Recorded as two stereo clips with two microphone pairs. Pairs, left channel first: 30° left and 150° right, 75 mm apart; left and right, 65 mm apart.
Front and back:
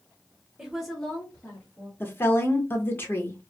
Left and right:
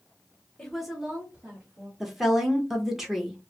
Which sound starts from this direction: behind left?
A woman speaking, at 0.6 s.